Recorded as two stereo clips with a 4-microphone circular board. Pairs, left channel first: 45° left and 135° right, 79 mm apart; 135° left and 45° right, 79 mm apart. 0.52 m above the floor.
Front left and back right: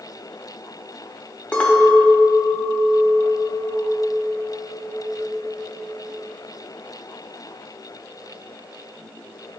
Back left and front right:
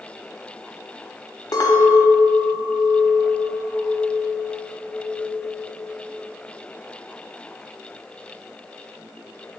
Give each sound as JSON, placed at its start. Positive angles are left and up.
{"t": 1.5, "sound": "a clink", "azimuth_deg": 115, "distance_m": 0.8}